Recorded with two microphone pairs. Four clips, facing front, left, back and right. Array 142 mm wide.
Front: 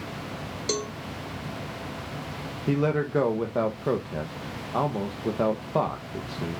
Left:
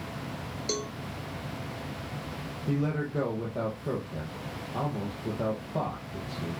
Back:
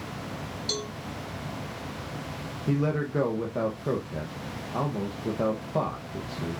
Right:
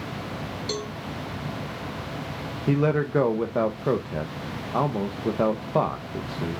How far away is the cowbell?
About 1.7 m.